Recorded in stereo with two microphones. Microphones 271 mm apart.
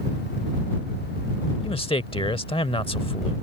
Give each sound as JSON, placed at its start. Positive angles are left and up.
{"t": 1.6, "sound": "a man speaking", "side_deg": 20}